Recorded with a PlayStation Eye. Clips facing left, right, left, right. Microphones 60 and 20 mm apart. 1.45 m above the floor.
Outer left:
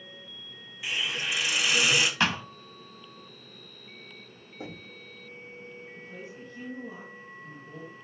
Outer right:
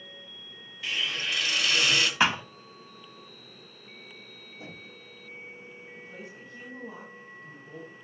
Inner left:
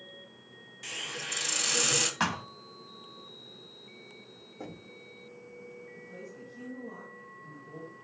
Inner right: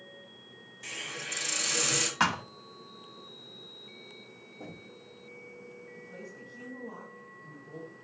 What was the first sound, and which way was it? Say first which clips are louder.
A hiss: even, inner left 1 dB; 15° left (ahead or behind).